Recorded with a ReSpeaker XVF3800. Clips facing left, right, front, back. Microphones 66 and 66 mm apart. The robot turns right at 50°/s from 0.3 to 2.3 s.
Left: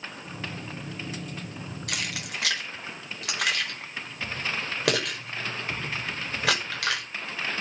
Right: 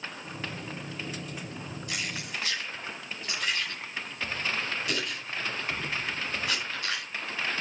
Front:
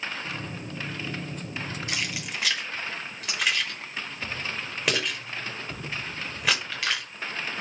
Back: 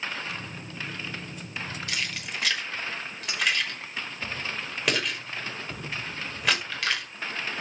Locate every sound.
1.9 s keys jangling: 65° left, 5.5 m; by 7.0 s 85° left, 5.5 m